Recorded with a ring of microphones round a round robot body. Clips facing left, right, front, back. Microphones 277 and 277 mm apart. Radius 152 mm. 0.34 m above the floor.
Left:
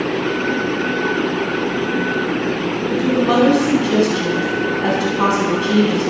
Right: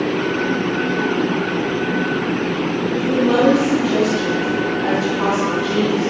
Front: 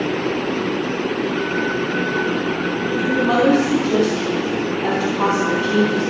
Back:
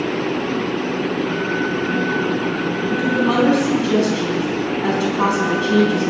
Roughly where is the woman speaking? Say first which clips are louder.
Left 1 dB, even; behind left.